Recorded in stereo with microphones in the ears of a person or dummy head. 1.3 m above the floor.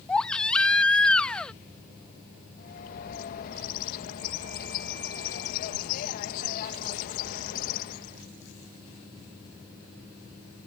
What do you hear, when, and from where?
0.1 s a baby crying: 5° left (ahead or behind)
2.6 s a bird: 50° left (ahead or behind)